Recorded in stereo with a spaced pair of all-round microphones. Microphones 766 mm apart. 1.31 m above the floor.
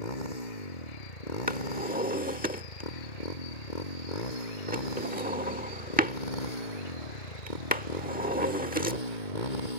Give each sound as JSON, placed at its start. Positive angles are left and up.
{"t": 0.0, "sound": "a motorcycle", "side_deg": 80}
{"t": 1.5, "sound": "a drawer", "side_deg": -10}